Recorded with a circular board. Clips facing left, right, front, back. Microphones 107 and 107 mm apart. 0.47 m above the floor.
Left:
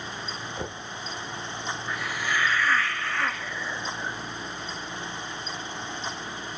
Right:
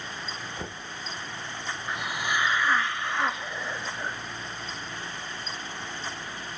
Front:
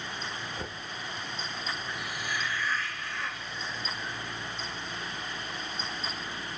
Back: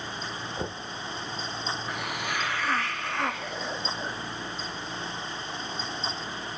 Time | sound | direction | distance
0.6 | knocking | 160° left | 0.8 m
1.9 | a hiss | 160° right | 0.5 m